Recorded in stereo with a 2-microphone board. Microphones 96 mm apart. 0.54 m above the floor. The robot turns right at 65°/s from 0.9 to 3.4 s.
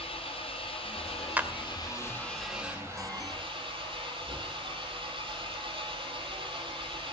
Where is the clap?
20° right (ahead or behind), 1.6 m; by 1.5 s 10° right (ahead or behind), 1.6 m.